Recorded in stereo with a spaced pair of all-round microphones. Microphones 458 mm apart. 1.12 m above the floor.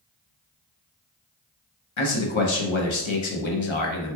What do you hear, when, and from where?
2.0 s a man speaking: 80° left, 0.7 m